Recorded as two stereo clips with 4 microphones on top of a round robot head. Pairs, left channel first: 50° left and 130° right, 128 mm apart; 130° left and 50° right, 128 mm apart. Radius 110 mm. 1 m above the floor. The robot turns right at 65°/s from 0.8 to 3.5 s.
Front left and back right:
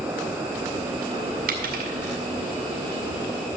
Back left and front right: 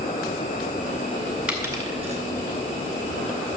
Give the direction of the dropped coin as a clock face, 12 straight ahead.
4 o'clock.